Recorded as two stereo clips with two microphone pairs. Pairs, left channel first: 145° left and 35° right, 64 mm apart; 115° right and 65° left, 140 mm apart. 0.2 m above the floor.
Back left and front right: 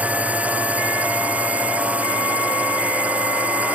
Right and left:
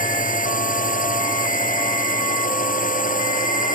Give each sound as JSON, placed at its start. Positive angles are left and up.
{"t": 0.0, "sound": "a drone", "azimuth_deg": -105}